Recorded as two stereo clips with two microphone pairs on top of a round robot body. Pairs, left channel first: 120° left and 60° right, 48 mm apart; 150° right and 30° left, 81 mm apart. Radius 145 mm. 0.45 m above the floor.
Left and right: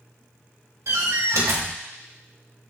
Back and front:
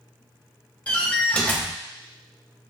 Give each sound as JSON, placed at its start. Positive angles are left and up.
{"t": 0.9, "sound": "a door slam", "azimuth_deg": -75, "distance_m": 1.5}